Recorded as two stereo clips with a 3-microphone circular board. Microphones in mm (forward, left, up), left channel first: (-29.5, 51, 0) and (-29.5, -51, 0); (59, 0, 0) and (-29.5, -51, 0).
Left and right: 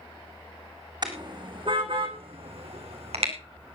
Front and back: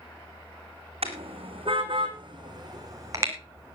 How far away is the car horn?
About 3 m.